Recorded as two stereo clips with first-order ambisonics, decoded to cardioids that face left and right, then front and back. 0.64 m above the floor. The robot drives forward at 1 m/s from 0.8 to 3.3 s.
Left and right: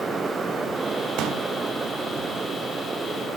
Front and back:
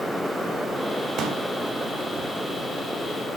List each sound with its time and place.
1.2 s a pop: 125° right, 1.0 m; by 1.4 s 140° right, 1.2 m